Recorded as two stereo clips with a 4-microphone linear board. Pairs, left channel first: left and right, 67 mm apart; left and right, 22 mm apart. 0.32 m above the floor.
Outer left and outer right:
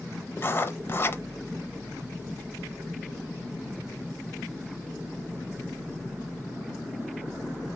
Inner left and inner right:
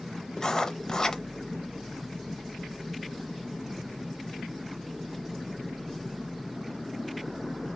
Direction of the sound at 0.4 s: 35° left (ahead or behind).